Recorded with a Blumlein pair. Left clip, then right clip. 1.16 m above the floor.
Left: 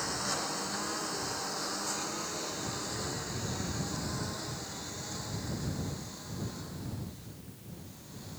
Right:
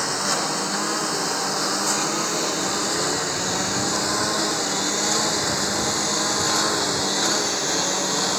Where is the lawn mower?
30° right; by 8.4 s 45° right.